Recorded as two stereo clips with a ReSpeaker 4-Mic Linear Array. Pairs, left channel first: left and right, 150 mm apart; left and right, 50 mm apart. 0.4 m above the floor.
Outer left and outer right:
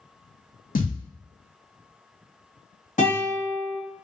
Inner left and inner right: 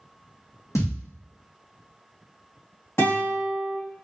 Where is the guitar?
55° left (ahead or behind), 1.8 m.